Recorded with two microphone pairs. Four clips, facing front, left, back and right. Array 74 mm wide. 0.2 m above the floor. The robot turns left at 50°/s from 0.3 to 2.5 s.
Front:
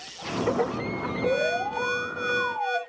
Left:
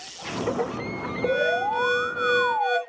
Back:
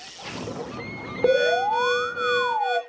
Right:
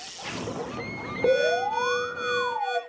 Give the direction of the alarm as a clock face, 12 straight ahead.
5 o'clock.